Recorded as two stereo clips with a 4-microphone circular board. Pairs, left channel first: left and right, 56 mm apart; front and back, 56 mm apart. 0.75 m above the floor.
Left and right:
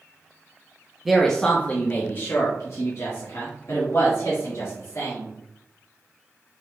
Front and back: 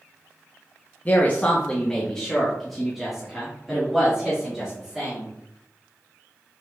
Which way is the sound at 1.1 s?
10° right.